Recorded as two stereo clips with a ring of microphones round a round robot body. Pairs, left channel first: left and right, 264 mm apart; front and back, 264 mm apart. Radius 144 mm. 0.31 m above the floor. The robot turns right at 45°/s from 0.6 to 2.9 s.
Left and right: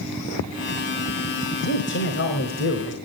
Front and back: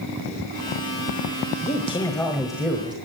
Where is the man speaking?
55° left, 1.5 m; by 3.0 s 110° left, 1.5 m.